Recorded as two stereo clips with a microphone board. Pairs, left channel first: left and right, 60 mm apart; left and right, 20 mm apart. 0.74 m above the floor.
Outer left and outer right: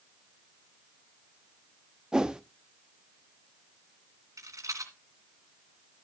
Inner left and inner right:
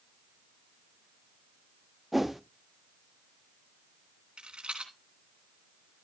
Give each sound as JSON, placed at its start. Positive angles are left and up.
{"t": 2.1, "sound": "a whoosh", "side_deg": -15, "distance_m": 0.6}
{"t": 4.4, "sound": "a rattle", "side_deg": -65, "distance_m": 2.5}